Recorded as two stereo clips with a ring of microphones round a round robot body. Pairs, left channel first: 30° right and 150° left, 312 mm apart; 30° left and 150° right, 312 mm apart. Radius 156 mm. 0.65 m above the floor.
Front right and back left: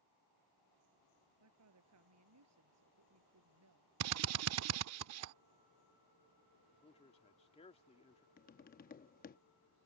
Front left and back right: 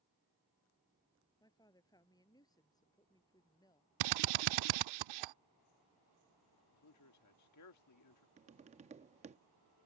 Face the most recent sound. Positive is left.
turn(degrees=-85)